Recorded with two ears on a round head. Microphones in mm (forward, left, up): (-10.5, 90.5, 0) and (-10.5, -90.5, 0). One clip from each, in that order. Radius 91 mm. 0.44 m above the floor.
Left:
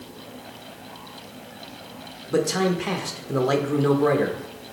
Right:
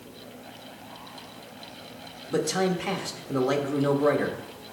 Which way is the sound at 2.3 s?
Centre (ahead or behind).